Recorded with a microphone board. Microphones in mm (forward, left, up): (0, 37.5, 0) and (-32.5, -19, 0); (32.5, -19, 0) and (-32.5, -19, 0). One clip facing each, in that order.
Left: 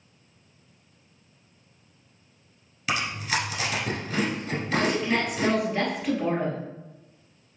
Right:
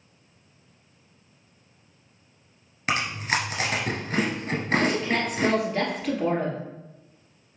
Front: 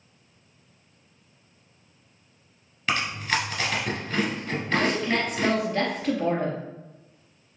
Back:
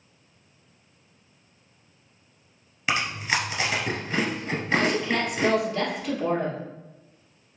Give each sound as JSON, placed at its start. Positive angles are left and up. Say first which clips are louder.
{"t": 2.9, "sound": "chewing", "louder": "right 2 dB, even", "azimuth_deg": -105, "distance_m": 1.3}
{"t": 4.8, "sound": "a woman speaking", "louder": "even, even", "azimuth_deg": -20, "distance_m": 2.0}